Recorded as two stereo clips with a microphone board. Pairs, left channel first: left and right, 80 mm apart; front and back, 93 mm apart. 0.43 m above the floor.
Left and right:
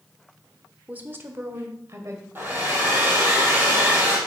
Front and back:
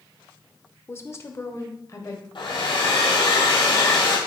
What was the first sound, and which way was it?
A woman speaking, 35° right.